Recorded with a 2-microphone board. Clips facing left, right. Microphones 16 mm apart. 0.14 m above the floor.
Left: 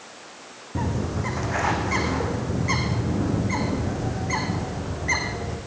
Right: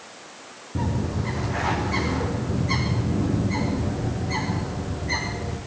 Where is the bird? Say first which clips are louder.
Even; 45° left (ahead or behind), 4.5 m.